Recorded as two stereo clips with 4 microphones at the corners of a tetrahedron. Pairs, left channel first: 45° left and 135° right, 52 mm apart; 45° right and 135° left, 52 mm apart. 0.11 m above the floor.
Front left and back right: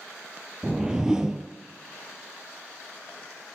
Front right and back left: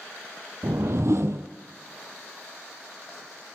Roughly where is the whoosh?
Behind left.